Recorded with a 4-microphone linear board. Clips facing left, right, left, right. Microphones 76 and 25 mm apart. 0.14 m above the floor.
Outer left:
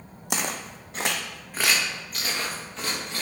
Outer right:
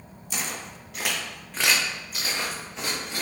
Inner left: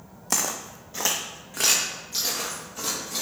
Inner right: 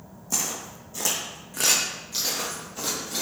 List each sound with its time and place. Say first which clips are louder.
0.3 s footsteps: outer left 4 dB, inner left 2 dB; 70° left (ahead or behind), 0.5 m; by 3.2 s 15° right (ahead or behind), 1.6 m